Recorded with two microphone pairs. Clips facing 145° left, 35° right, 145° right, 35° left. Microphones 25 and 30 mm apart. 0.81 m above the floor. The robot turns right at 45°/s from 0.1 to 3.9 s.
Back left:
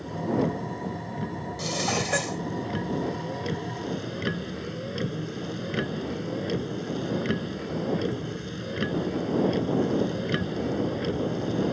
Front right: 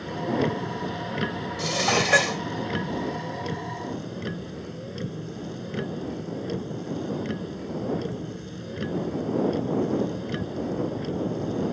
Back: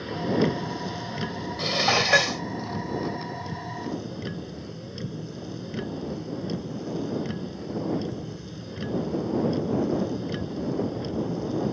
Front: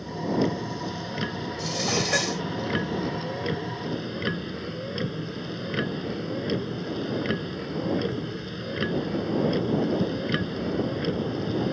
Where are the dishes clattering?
110° right; by 2.4 s 70° right.